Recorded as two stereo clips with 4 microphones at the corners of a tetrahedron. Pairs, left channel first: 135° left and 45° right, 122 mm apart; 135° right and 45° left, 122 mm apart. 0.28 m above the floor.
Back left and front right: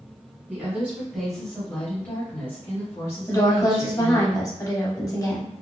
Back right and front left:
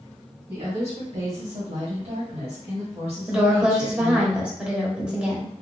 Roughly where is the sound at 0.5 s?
Ahead left.